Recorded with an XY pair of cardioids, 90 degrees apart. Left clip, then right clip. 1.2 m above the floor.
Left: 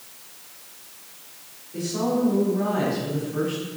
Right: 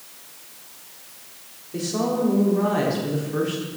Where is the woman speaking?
65° right, 4 m.